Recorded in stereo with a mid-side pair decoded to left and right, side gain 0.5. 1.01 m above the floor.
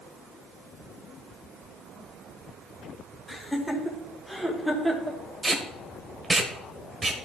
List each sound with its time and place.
3.3 s laughter: 10° left, 4 m; by 5.2 s 15° right, 3 m
5.4 s tape being pulled: 25° right, 1.6 m